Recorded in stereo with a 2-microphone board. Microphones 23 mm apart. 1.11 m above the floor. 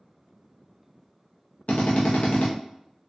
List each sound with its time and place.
1.7 s a drill: 80° left, 0.7 m